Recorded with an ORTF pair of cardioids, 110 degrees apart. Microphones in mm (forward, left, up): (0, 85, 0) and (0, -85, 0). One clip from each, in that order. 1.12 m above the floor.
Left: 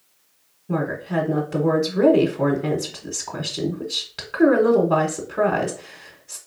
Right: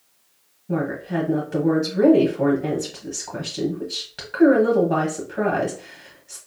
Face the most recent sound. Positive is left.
turn(degrees=10)